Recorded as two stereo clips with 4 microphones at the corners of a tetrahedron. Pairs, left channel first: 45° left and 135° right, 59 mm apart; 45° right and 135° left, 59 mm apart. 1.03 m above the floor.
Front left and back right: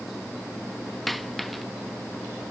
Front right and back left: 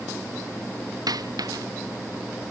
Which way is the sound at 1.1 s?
135° left.